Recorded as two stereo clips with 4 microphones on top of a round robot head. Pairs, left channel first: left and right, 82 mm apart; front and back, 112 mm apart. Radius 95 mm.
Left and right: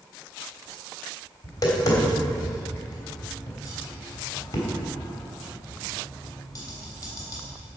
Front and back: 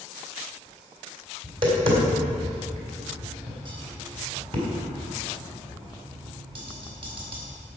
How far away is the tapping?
About 3.5 m.